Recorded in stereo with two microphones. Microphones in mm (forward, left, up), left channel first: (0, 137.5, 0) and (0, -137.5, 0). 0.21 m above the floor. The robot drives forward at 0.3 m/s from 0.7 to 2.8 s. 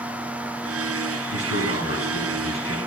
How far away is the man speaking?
About 1.5 m.